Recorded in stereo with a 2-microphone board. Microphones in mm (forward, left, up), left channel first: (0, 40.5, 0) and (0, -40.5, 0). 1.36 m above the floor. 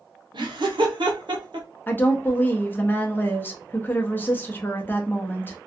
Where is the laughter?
75° right (ahead or behind), 0.9 m.